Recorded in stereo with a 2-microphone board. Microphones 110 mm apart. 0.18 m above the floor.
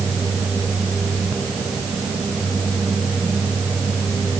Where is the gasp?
No gasp in this recording.